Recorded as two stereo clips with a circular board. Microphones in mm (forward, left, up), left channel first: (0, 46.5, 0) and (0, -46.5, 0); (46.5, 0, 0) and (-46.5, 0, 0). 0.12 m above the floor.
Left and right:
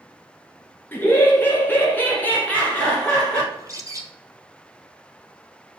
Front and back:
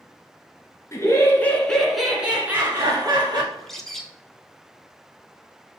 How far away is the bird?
About 0.9 m.